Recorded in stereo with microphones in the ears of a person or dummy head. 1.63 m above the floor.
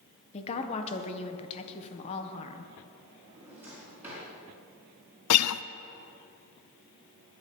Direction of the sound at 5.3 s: 90° left.